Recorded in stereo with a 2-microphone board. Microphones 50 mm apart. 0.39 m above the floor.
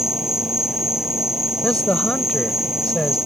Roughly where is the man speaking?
Centre.